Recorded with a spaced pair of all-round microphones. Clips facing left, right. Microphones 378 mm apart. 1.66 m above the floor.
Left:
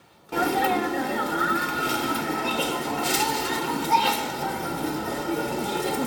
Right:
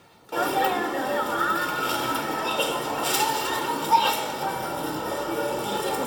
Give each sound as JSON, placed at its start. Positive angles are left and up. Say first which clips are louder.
{"t": 0.3, "sound": "a sneeze", "louder": "left 2 dB", "side_deg": 35, "distance_m": 0.9}